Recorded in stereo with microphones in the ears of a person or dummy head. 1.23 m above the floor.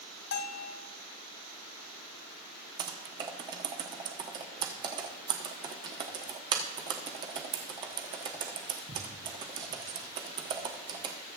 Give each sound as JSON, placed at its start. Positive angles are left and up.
{"t": 0.3, "sound": "a bell", "side_deg": 65, "distance_m": 0.8}
{"t": 2.8, "sound": "typing on a keyboard", "side_deg": -30, "distance_m": 1.0}